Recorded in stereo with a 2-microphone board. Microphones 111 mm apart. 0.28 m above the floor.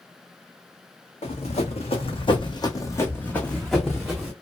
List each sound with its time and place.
1.2 s running footsteps: 80° left, 1.2 m; by 4.3 s 10° right (ahead or behind), 1.4 m